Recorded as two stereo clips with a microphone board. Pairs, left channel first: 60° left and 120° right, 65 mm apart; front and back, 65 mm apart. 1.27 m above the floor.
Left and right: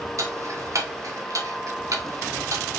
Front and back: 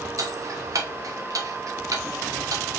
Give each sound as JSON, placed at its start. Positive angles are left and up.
{"t": 0.2, "sound": "ticking", "azimuth_deg": -155, "distance_m": 1.2}